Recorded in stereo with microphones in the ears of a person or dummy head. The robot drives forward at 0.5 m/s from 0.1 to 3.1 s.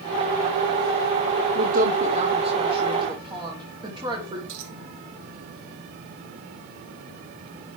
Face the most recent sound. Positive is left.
turn(degrees=-65)  # may be behind; listen again after turning